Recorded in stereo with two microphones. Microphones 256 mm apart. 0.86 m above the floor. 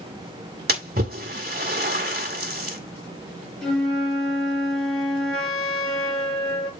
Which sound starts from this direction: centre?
A flute, at 3.6 s.